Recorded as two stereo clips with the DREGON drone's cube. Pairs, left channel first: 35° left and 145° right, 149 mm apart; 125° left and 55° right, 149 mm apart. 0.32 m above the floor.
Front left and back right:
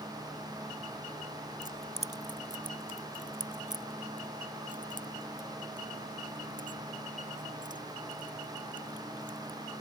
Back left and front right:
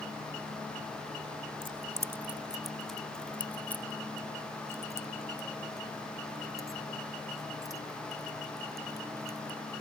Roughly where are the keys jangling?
Right.